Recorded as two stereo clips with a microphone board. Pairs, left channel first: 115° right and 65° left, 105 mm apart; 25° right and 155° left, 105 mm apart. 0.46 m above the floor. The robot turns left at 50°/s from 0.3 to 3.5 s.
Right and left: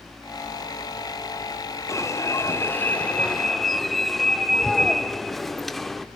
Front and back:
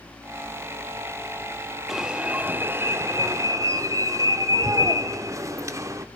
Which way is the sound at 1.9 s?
120° right.